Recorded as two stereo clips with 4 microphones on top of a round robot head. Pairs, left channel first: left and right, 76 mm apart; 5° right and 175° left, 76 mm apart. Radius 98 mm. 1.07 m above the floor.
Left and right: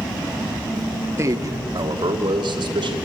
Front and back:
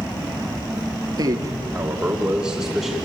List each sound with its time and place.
1.2 s a man speaking: 145° right, 1.5 m; by 3.0 s 100° right, 3.5 m